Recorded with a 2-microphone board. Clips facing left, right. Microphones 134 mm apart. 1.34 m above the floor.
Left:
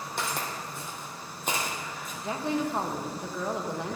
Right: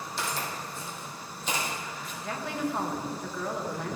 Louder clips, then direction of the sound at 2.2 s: Left 3 dB; 20° left (ahead or behind).